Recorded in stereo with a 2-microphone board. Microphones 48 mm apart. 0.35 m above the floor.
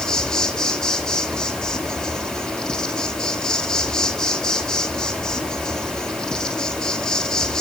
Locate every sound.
0.0 s an insect: 15° left (ahead or behind), 3.5 m